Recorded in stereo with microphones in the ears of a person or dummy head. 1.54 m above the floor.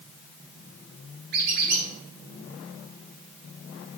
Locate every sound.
1.3 s a squeak: 60° right (ahead or behind), 3.5 m